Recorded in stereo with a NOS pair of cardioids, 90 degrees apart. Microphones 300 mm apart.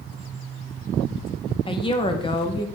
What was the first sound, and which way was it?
A woman speaking, 15° left.